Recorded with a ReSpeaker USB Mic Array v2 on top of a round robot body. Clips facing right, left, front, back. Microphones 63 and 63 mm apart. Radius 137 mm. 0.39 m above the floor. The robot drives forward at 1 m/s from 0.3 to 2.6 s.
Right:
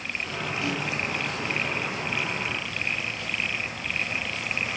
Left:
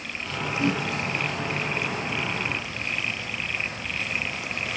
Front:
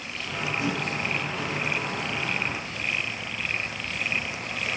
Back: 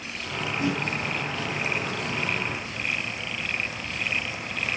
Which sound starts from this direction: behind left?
A whoosh, at 0.6 s.